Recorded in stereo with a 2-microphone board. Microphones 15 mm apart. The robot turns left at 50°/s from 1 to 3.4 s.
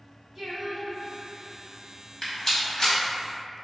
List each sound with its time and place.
0.3 s singing: 155° right, 1.0 m; by 1.8 s 165° left, 1.0 m
2.2 s a rattle: 20° left (ahead or behind), 1.2 m; by 3.0 s 55° left (ahead or behind), 1.2 m